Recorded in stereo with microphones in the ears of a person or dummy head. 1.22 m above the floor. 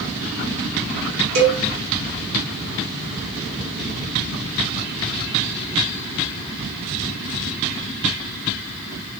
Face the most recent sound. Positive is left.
turn(degrees=-75)  # may be behind; listen again after turning